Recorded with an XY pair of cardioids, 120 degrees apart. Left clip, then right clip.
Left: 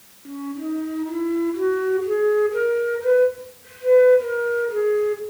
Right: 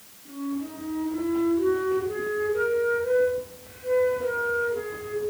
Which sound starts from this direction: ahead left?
A flute, at 0.2 s.